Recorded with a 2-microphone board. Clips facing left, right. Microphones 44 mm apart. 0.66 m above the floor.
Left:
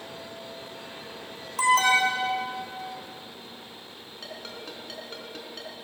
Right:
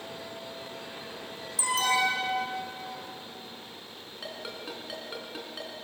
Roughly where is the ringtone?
Centre.